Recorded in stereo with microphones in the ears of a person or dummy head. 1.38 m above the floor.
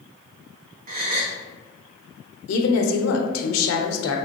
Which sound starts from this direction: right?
A gasp, at 0.9 s.